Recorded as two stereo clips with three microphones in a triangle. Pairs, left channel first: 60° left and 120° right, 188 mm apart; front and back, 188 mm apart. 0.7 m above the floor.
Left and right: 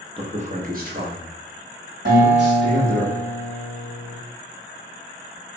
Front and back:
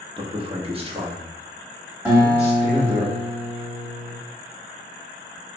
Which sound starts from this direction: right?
A guitar, at 2.0 s.